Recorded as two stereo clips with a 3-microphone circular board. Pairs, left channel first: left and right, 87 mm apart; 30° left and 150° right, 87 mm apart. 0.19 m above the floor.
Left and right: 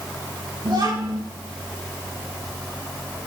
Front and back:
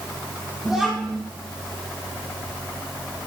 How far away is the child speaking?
About 4.5 m.